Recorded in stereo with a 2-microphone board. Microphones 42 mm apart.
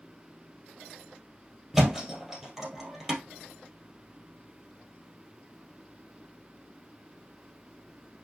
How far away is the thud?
About 2.5 m.